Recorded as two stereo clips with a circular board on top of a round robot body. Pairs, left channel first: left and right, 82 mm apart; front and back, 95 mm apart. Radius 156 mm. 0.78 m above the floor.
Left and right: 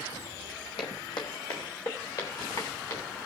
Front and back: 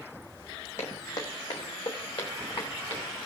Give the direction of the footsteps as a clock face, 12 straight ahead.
10 o'clock.